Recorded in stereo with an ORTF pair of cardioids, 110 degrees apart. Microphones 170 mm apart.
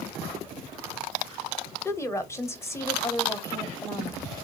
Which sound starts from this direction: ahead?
A woman speaking, at 1.9 s.